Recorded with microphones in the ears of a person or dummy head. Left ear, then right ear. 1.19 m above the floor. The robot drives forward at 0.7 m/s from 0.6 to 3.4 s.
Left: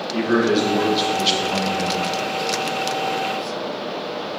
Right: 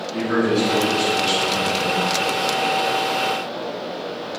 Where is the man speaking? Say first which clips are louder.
Left 2 dB; 30° left (ahead or behind), 1.0 m; by 2.0 s 75° left (ahead or behind), 0.5 m.